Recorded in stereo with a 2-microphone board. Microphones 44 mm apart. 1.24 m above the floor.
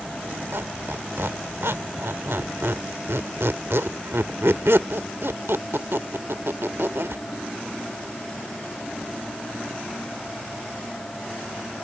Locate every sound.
0.5 s a squeak: 75° right (ahead or behind)